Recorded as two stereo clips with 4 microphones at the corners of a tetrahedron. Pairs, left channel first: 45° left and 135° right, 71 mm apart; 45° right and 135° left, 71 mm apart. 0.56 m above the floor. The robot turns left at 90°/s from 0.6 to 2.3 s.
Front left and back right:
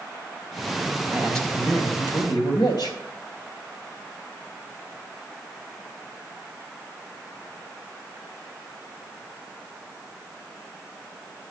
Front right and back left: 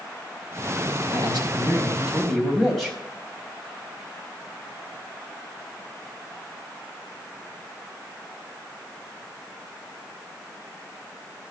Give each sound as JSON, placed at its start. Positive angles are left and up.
{"t": 1.1, "sound": "a man speaking", "azimuth_deg": 150, "distance_m": 4.0}